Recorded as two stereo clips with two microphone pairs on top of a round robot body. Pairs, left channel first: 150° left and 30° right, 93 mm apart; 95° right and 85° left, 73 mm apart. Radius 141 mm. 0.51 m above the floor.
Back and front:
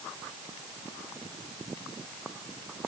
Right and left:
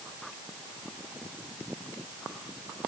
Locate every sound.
Only background noise.